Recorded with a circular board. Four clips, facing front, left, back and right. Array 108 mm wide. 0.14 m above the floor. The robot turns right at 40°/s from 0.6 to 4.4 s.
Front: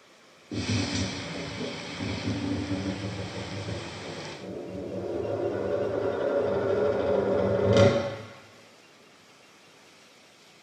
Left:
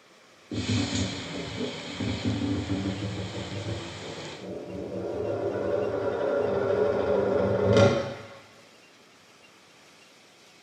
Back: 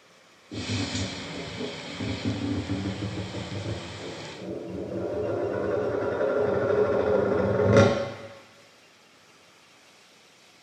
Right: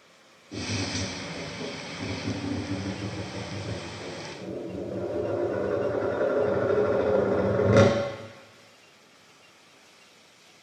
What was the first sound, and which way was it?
Tapping, 65° left.